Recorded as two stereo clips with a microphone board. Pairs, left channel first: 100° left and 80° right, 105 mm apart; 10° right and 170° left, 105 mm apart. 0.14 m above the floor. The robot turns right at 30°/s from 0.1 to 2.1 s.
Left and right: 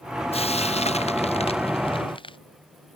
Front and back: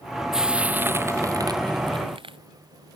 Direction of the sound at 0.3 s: 85° left.